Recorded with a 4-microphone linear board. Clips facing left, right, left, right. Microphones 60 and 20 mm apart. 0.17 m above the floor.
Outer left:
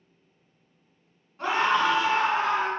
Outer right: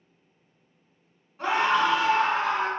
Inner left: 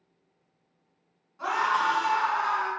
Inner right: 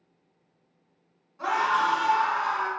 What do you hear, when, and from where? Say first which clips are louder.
1.4 s a scream: even, inner right 1 dB; 5° right (ahead or behind), 1.4 m; by 2.7 s centre (ahead or behind), 1.5 m